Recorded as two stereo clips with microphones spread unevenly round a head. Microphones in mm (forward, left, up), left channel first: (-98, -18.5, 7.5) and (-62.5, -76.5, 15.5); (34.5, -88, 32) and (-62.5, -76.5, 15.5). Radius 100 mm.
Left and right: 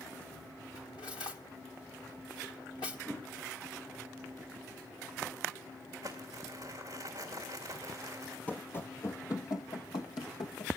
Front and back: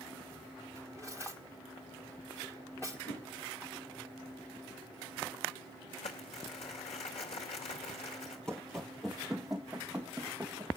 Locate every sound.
0.8 s cutlery clinking: 70° left, 1.2 m
3.1 s a whoosh: 35° left, 4 m
6.0 s crumpling: 5° left, 2.5 m
8.5 s running footsteps: 50° left, 1.0 m; by 10.7 s 85° left, 2.5 m